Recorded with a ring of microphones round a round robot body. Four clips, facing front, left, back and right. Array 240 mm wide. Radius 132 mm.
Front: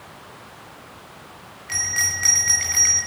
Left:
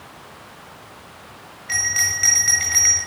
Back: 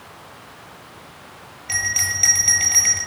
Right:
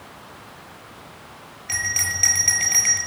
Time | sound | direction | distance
1.7 | a bell | 140° right | 5.5 m